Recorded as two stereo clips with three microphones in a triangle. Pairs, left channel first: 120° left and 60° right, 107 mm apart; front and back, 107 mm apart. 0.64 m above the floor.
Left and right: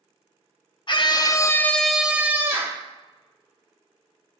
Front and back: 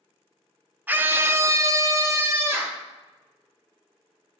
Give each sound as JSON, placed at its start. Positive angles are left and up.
{"t": 0.9, "sound": "a scream", "azimuth_deg": 110, "distance_m": 0.7}